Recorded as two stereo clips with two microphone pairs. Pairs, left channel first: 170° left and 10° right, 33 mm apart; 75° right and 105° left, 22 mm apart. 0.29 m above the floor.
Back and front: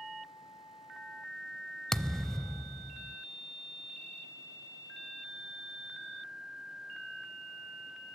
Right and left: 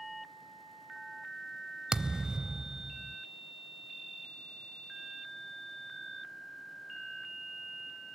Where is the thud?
105° left, 0.6 m.